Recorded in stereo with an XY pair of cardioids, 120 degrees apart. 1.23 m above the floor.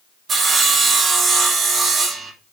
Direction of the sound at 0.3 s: 45° right.